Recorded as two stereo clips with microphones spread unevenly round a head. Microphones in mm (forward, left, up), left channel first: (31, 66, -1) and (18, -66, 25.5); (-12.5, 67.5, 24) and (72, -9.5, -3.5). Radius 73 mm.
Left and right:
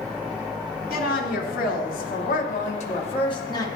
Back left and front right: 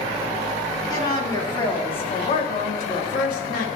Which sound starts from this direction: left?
A woman speaking, at 0.9 s.